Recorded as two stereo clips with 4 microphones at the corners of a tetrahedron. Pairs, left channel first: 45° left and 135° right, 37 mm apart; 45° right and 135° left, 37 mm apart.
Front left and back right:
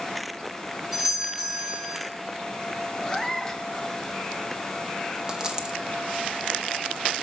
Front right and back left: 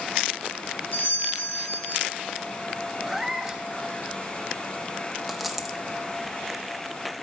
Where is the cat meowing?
80° left, 0.6 m.